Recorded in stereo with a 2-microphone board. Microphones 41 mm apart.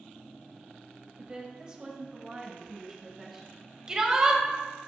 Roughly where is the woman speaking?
Right.